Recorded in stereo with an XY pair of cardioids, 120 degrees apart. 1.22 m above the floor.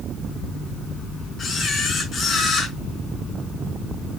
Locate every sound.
1.4 s a camera shutter: 35° left, 5.5 m